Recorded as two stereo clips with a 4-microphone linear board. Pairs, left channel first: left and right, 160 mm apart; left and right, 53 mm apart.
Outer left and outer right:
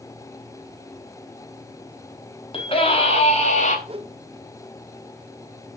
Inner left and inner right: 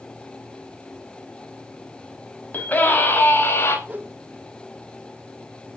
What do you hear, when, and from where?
2.5 s a scream: 35° left (ahead or behind), 6 m; by 3.8 s 45° left (ahead or behind), 5 m
3.9 s a whoosh: 35° right (ahead or behind), 1.1 m